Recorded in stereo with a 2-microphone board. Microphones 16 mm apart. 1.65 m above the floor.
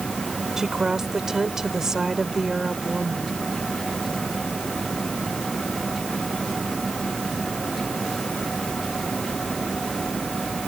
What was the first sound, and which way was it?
A woman speaking, 35° right (ahead or behind).